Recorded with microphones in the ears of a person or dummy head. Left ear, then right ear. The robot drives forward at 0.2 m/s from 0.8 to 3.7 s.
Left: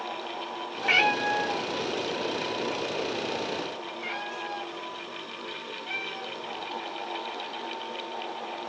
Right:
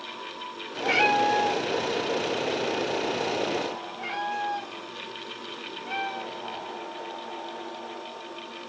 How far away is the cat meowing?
About 0.6 m.